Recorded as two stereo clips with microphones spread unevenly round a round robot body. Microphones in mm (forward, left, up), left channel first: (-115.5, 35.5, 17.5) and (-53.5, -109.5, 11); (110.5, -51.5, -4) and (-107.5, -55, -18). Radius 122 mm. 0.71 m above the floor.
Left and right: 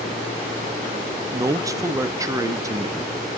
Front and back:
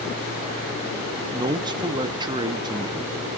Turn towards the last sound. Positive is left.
turn(degrees=-125)